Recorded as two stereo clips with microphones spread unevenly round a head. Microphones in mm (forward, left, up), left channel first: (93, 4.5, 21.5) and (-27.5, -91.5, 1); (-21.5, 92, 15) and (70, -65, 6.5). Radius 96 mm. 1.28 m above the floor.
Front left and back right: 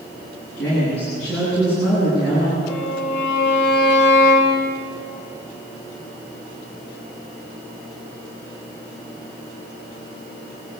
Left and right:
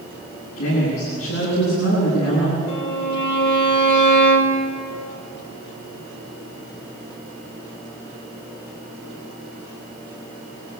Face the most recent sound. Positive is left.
turn(degrees=95)